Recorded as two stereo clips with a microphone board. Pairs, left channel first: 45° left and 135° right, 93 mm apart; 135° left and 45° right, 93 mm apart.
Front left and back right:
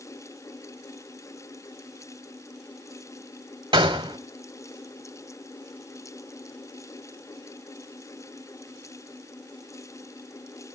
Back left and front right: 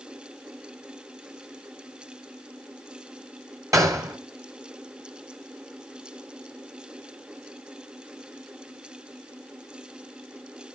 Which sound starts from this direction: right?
A gunshot, at 3.7 s.